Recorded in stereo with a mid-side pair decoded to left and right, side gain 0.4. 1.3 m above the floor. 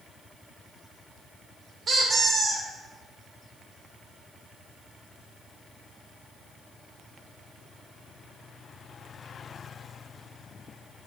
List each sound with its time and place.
1.9 s a squeak: 50° right, 1.1 m